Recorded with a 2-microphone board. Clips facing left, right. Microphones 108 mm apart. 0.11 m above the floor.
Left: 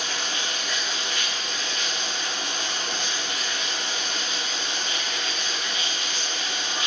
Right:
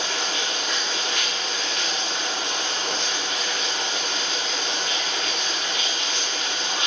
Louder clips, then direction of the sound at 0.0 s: Right 3 dB; 85° right.